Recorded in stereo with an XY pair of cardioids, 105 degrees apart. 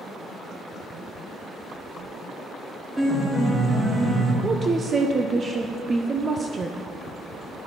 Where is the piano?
15° right, 2.5 m.